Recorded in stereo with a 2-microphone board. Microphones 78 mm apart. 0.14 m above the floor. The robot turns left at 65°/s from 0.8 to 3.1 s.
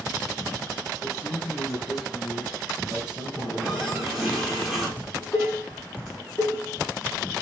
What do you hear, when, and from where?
1.0 s a man speaking: 55° left, 3.5 m; by 4.4 s 80° right, 3.5 m
3.4 s a running tap: centre (ahead or behind), 6 m
5.0 s dishes clattering: 20° left (ahead or behind), 5 m